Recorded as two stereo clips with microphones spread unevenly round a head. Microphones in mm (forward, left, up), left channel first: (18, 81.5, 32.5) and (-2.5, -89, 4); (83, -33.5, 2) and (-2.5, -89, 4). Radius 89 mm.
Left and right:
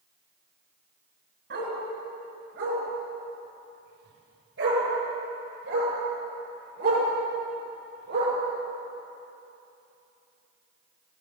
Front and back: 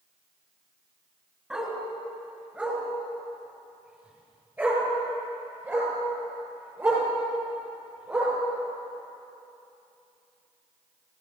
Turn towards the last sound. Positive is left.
turn(degrees=-80)